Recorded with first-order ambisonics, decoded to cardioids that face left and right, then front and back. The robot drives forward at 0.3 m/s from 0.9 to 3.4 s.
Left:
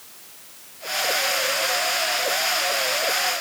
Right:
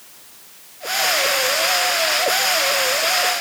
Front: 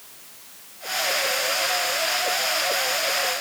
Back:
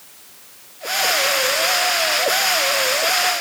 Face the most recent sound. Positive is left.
No sound to turn to.